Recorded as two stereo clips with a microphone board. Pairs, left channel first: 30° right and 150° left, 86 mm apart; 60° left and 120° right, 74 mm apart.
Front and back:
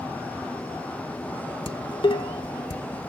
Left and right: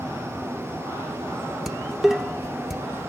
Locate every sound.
1.7 s dishes clattering: 35° right, 1.1 m